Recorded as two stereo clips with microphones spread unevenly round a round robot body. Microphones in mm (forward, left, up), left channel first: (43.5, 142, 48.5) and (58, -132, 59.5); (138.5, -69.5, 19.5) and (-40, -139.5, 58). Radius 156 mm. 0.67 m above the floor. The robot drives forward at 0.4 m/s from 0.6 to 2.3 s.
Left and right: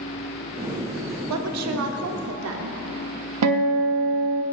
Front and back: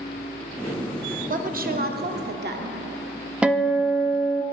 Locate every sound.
1.3 s a woman speaking: 110° right, 1.3 m; by 2.8 s 125° right, 1.4 m
3.4 s a guitar: 70° right, 1.0 m